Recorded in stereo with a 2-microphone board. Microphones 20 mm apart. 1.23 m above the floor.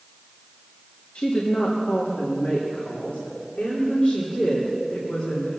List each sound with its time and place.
1.1 s a woman speaking: 80° left, 1.7 m; by 5.6 s 55° left (ahead or behind), 4.5 m